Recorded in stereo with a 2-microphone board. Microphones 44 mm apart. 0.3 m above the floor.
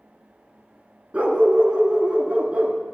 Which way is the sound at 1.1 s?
30° right (ahead or behind).